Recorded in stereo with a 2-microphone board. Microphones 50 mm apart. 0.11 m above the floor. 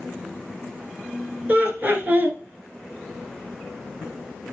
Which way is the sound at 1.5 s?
35° right (ahead or behind).